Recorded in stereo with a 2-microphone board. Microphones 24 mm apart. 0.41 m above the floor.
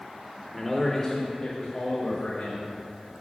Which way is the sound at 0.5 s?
Centre (ahead or behind).